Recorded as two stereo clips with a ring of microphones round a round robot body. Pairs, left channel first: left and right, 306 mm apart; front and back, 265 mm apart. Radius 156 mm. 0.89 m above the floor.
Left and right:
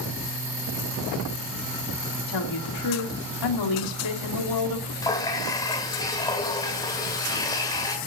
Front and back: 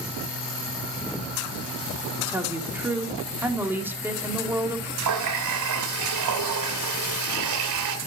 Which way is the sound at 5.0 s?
170° left.